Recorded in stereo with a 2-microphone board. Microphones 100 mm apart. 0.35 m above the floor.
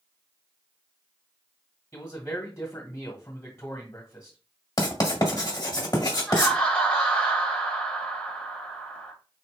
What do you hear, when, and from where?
1.9 s a man speaking: 35° left (ahead or behind), 1.6 m
4.8 s writing: 45° left (ahead or behind), 1.3 m
6.3 s laughter: 10° left (ahead or behind), 1.2 m